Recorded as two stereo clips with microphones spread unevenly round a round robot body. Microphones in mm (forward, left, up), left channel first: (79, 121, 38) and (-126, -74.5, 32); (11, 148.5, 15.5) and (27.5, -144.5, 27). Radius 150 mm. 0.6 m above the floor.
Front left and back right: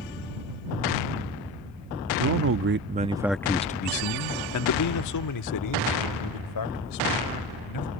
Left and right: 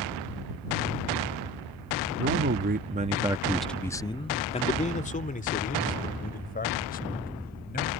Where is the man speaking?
140° right; by 7.9 s 35° left.